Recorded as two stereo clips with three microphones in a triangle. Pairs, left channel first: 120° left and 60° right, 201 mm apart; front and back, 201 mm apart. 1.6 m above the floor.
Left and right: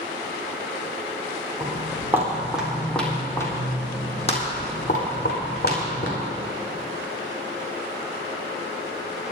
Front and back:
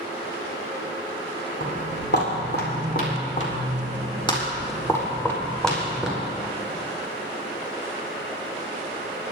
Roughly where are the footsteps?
Ahead.